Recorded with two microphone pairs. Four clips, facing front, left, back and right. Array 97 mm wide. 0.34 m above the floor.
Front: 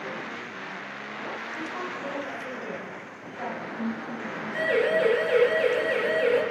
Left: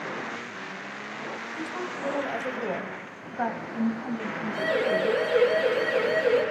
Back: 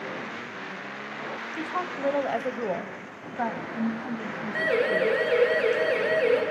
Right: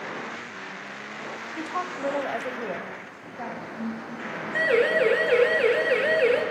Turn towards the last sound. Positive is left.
turn(degrees=-100)